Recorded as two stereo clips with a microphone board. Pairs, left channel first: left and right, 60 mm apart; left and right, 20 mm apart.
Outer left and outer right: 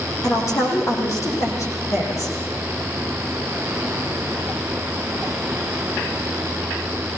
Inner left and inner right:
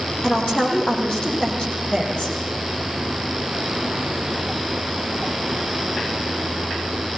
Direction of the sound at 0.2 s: 55° left (ahead or behind).